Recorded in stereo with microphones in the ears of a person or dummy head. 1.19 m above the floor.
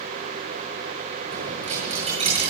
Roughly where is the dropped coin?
Right.